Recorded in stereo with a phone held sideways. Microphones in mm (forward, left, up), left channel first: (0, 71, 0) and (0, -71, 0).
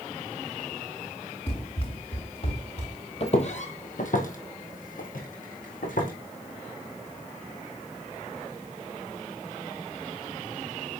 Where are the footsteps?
45° left (ahead or behind), 1.6 m; by 6.1 s 65° left (ahead or behind), 3.5 m.